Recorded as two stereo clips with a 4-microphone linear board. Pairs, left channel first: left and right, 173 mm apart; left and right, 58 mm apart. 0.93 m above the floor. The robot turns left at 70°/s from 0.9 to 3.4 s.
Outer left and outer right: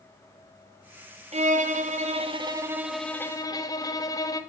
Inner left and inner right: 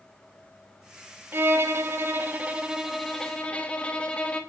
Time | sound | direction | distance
1.3 | a violin | 65° right | 0.8 m